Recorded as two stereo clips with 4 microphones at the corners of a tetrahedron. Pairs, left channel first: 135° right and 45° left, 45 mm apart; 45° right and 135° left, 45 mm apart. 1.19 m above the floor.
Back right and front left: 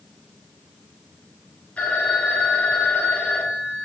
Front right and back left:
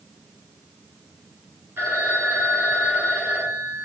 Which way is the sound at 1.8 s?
165° left.